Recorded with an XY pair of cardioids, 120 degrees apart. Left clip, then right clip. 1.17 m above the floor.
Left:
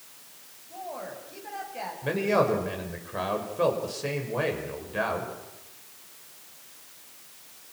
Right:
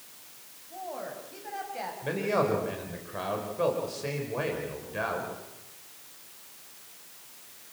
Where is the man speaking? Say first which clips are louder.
Left 4 dB; 15° left, 6 m.